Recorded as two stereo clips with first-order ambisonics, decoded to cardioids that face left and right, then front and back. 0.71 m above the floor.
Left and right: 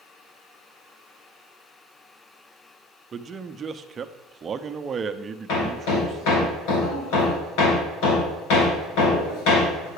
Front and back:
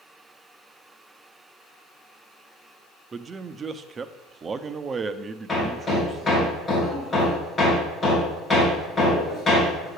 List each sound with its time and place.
3.1 s a man speaking: 130° right, 0.5 m
5.5 s hammering: 80° left, 3 m